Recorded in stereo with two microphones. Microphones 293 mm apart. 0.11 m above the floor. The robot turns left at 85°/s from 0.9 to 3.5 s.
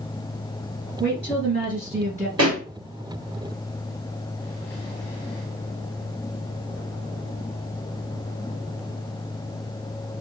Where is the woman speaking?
60° right, 1.9 m; by 2.3 s 170° right, 1.9 m.